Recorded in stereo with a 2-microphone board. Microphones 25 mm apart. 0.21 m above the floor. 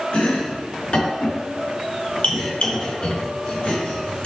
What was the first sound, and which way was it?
Chopping, 55° left (ahead or behind).